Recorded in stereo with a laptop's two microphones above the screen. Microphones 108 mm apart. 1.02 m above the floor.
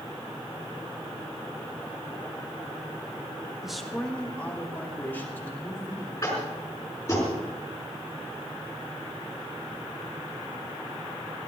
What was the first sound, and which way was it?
A man speaking, 5° right (ahead or behind).